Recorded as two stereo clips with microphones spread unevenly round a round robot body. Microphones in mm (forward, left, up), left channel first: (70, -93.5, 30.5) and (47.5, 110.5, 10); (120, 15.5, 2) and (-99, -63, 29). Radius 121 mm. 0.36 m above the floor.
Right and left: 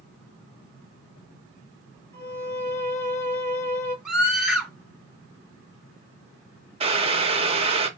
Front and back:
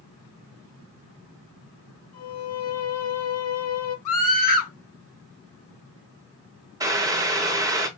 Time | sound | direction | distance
2.1 | a violin | 5° right | 3 m
4.0 | a scream | 10° left | 2.5 m
6.8 | boiling | 125° left | 0.7 m